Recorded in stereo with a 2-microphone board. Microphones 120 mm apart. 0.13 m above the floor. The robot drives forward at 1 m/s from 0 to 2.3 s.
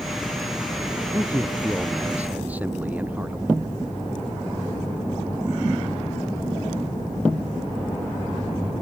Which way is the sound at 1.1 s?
15° right (ahead or behind).